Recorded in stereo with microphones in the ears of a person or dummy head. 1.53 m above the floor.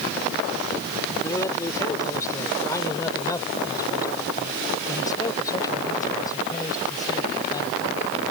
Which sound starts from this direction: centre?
A man speaking, at 1.2 s.